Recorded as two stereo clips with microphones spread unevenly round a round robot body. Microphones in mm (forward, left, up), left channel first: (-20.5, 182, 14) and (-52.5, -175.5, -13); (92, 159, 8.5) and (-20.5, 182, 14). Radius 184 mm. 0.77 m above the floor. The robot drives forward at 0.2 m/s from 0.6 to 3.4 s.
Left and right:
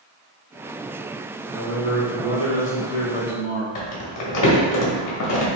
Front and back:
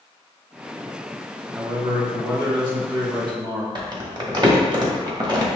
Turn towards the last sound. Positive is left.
turn(degrees=120)